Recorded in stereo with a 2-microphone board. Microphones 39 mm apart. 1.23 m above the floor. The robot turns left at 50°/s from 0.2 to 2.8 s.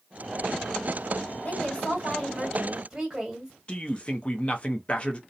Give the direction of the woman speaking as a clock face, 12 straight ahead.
10 o'clock.